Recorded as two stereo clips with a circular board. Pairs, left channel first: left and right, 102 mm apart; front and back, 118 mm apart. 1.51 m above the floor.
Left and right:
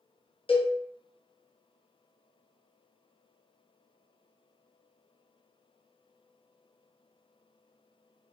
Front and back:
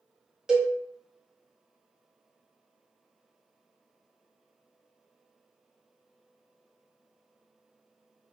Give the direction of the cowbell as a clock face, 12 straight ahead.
9 o'clock.